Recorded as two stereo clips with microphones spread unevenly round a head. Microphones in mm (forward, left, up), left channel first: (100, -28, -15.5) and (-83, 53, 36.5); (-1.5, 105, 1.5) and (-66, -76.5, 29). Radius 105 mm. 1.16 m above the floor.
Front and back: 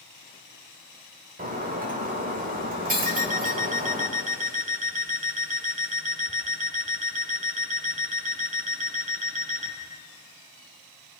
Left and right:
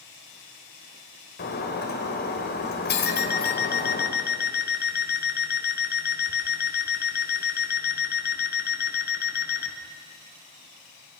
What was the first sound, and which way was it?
Breaking glass, 110° left.